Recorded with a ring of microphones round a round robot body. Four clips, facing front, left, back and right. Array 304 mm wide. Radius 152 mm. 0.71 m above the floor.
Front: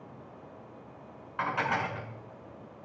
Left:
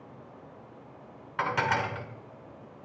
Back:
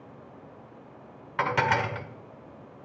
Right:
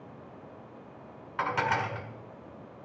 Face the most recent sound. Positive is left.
turn(degrees=175)